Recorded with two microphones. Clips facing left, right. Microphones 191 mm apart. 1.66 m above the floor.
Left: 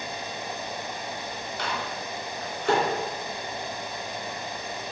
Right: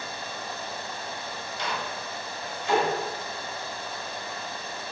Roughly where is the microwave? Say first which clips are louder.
Even; left.